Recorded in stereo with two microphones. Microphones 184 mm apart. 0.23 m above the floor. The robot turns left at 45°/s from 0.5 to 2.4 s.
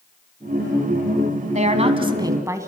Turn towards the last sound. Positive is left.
turn(degrees=-160)